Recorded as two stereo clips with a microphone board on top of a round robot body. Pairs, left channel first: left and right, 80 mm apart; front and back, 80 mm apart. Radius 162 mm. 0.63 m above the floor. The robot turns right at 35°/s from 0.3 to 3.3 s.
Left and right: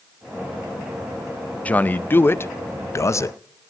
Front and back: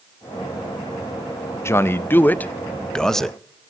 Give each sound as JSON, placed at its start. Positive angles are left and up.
{"t": 1.6, "sound": "a man speaking", "azimuth_deg": 25, "distance_m": 0.5}